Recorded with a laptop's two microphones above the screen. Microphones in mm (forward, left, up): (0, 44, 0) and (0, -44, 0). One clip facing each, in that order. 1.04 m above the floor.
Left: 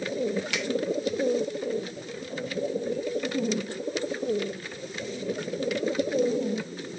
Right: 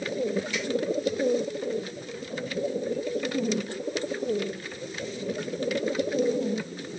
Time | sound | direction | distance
0.5 | a finger snap | 85° left | 0.8 m